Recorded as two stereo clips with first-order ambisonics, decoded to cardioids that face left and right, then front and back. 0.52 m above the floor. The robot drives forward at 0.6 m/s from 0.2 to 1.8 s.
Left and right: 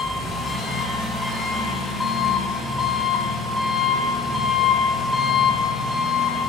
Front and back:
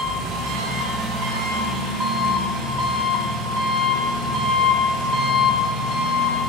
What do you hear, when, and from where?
0.0 s an engine running: 160° left, 2 m; by 6.5 s 165° left, 3 m